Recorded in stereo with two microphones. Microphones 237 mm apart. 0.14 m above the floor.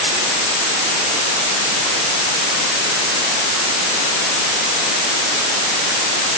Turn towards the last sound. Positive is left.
No sound to turn to.